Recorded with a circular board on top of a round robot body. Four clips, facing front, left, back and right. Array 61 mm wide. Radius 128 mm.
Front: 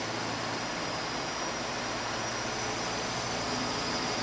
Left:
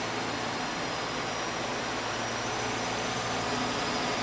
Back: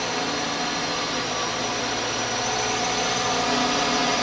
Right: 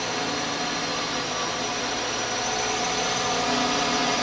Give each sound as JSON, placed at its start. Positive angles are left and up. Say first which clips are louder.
{"t": 0.0, "sound": "a drone", "louder": "right 4 dB, back 8 dB", "azimuth_deg": -150}